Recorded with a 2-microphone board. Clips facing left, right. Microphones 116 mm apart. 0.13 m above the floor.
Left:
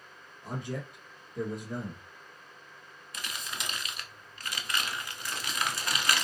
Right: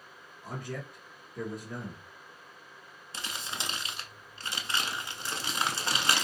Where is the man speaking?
20° left (ahead or behind), 1.7 m.